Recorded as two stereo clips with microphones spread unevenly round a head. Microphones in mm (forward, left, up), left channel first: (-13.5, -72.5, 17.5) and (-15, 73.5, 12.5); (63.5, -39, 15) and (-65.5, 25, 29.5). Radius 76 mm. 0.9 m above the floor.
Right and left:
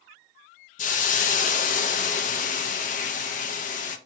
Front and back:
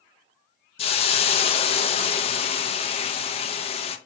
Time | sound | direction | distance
0.8 | a hiss | 60° right | 0.5 m